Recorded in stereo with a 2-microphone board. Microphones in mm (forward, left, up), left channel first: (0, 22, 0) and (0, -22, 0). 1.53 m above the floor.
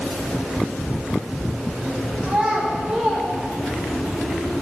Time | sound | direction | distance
2.2 | a child speaking | 20° right (ahead or behind) | 2.5 m